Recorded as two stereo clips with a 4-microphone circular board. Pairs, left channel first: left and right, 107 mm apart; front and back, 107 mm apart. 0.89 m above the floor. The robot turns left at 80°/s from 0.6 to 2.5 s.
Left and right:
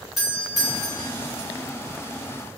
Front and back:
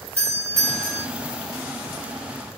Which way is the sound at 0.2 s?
175° right.